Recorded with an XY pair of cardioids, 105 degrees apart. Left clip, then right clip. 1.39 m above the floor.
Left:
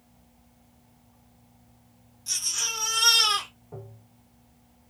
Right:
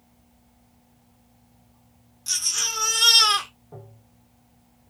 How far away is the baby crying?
About 1.2 m.